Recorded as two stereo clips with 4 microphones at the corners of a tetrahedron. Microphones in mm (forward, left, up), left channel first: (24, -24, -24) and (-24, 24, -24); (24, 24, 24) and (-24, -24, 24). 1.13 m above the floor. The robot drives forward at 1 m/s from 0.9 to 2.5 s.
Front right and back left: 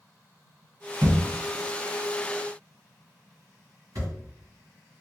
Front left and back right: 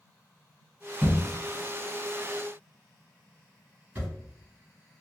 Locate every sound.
1.0 s a thud: 160° left, 1.8 m; by 4.1 s 170° left, 3 m